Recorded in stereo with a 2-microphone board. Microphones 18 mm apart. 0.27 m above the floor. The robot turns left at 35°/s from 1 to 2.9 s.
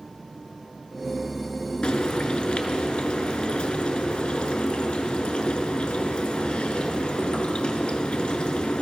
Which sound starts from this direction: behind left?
Frying, at 1.8 s.